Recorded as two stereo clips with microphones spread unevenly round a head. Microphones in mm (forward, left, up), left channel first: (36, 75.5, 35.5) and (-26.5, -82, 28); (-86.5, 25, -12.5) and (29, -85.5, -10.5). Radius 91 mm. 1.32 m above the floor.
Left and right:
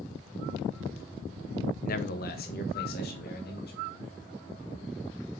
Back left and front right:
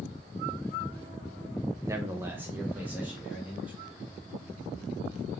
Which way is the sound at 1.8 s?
30° left.